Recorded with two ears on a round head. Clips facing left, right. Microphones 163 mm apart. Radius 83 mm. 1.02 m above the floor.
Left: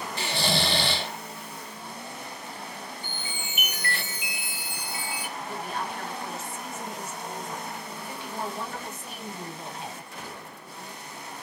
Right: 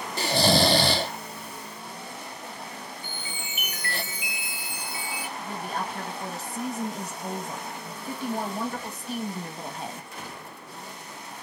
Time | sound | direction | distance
0.2 | snoring | 35° right (ahead or behind) | 0.5 m
3.0 | a chime | 60° left (ahead or behind) | 3 m
5.4 | a woman speaking | 35° right (ahead or behind) | 1.6 m